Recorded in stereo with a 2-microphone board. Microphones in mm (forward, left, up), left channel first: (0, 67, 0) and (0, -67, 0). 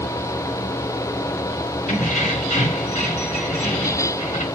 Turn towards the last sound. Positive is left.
turn(degrees=65)  # may be behind; listen again after turning